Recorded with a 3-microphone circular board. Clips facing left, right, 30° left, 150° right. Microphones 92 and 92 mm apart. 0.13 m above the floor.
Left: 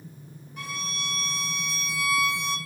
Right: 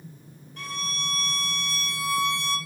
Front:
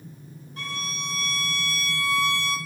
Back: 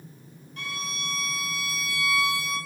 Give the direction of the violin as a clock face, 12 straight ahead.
11 o'clock.